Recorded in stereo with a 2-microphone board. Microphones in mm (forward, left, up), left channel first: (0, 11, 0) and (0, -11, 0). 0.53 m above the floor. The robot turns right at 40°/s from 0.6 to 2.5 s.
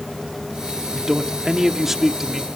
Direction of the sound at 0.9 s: 20° right (ahead or behind).